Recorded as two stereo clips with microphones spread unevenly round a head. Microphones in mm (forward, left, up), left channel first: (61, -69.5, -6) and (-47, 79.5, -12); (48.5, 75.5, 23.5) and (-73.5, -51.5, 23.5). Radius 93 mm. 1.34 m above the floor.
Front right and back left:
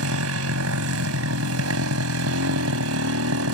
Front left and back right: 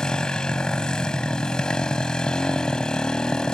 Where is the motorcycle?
130° left.